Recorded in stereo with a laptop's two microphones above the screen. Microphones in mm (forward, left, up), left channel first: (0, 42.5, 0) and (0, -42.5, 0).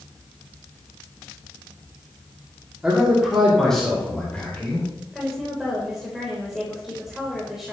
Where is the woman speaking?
5° right (ahead or behind), 3.5 m.